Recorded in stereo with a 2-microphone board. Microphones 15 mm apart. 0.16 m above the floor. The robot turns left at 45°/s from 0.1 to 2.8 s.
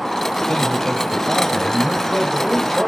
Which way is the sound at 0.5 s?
120° left.